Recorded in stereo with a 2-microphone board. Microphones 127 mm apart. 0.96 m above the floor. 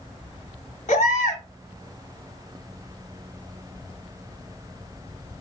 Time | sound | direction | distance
0.9 | a baby crying | 70° left (ahead or behind) | 0.9 m